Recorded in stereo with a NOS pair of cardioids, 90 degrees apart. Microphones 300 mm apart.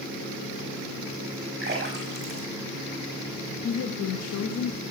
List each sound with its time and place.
1.6 s a splash: 35° right, 5 m
3.6 s a woman speaking: 55° left, 1.4 m